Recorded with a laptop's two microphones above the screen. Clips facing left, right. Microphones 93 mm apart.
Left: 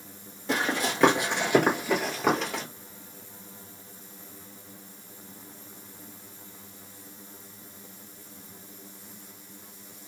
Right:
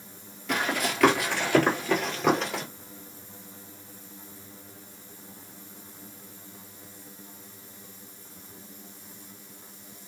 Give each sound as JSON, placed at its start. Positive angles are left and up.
{"t": 0.5, "sound": "running footsteps", "side_deg": 30, "distance_m": 1.1}